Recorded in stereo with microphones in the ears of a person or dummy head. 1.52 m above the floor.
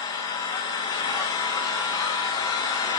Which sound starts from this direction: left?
An engine running, at 0.0 s.